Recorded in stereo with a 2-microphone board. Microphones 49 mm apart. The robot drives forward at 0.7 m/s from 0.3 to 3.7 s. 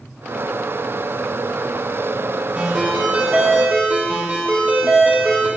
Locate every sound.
2.5 s a ringtone: 30° right (ahead or behind), 3.5 m; by 5.5 s 40° right (ahead or behind), 3 m